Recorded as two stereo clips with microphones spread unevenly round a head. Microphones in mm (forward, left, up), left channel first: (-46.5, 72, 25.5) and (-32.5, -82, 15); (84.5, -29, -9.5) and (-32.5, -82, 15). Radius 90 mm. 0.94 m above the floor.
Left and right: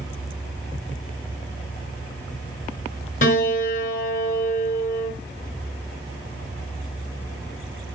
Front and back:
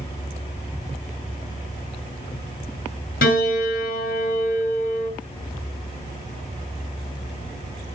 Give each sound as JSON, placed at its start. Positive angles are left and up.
{"t": 3.2, "sound": "a piano", "azimuth_deg": 45, "distance_m": 6.0}